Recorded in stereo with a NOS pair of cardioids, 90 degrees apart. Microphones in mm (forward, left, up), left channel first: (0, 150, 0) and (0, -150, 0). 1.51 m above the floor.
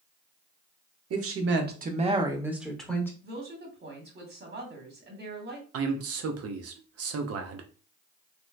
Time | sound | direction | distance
1.1 | a woman speaking | 55° right | 0.9 m
3.2 | a woman speaking | 35° right | 1.3 m
5.7 | a man speaking | 55° right | 0.7 m